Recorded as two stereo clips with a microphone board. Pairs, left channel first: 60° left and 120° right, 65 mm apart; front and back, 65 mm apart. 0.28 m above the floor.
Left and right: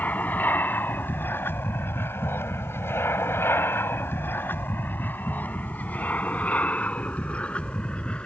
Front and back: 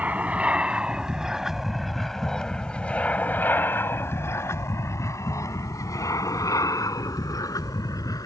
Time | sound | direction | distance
0.0 | an aircraft | 120° left | ?